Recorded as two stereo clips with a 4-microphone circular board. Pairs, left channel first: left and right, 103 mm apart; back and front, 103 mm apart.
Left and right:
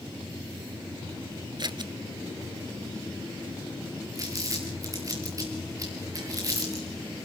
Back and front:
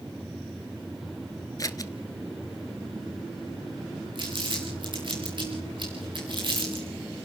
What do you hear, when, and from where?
1.6 s scissors: 130° right, 0.8 m
4.2 s crumpling: 35° right, 4.5 m